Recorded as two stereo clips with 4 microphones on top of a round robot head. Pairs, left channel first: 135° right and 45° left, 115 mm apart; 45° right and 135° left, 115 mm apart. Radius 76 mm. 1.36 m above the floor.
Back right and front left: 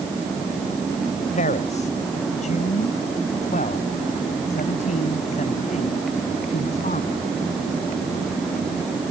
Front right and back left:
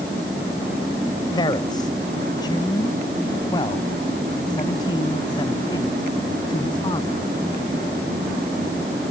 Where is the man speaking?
105° right.